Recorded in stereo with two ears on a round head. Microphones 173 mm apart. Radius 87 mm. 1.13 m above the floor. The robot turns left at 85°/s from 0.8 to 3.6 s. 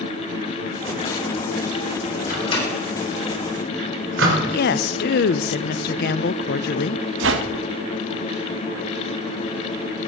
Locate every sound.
2.3 s a microwave: 45° left (ahead or behind), 3.5 m; by 4.4 s 65° right (ahead or behind), 3.5 m
4.5 s a woman speaking: 55° left (ahead or behind), 0.6 m
7.2 s a whoosh: 65° right (ahead or behind), 1.1 m